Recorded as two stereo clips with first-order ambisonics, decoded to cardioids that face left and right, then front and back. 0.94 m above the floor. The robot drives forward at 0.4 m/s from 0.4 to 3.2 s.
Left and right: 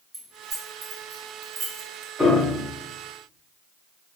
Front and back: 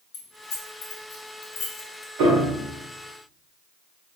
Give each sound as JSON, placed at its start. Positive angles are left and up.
{"t": 0.1, "sound": "keys jangling", "azimuth_deg": -25, "distance_m": 1.0}
{"t": 2.2, "sound": "a piano", "azimuth_deg": 180, "distance_m": 1.1}